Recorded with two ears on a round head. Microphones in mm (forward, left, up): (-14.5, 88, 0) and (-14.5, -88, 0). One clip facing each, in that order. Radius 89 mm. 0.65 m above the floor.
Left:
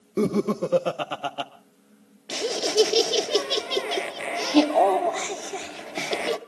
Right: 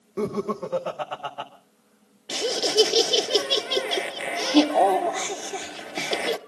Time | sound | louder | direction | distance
0.2 | laughter | left 4 dB | 40° left (ahead or behind) | 0.9 m
2.3 | laughter | even | 5° right (ahead or behind) | 1.0 m